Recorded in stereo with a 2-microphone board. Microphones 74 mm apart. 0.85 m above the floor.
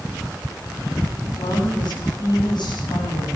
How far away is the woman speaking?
About 7 m.